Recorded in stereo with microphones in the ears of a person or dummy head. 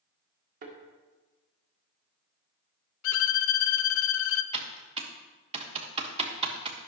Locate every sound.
0.6 s a thud: 50° right (ahead or behind), 1.6 m
3.0 s a violin: 65° left (ahead or behind), 0.7 m
4.5 s typing on a keyboard: 35° right (ahead or behind), 1.2 m